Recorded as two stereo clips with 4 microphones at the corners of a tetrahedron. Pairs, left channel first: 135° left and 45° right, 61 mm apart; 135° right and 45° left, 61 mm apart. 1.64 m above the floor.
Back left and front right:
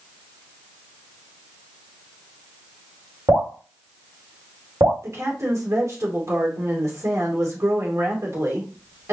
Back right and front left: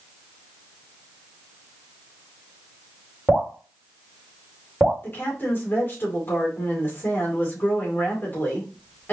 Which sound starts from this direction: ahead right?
Dripping, at 3.3 s.